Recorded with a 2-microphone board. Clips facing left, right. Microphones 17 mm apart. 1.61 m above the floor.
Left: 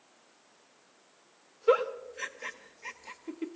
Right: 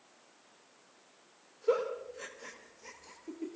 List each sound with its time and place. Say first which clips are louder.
1.7 s a giggle: left 5 dB; 45° left (ahead or behind), 1.1 m